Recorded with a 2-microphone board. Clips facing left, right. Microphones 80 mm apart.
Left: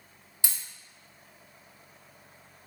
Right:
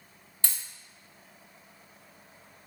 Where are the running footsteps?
I don't hear running footsteps.